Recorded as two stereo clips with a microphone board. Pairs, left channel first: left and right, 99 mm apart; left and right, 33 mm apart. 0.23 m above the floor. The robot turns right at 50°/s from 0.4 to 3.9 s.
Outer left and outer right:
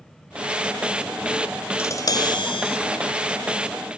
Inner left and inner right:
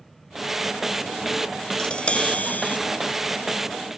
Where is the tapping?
30° left, 0.9 m; by 2.8 s 75° left, 0.9 m.